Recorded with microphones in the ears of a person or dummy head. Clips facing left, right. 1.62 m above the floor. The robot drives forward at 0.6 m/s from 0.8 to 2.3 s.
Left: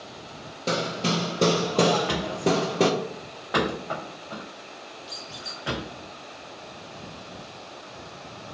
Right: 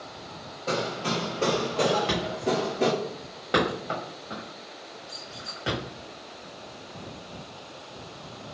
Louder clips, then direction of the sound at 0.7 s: Left 2 dB; 40° left (ahead or behind).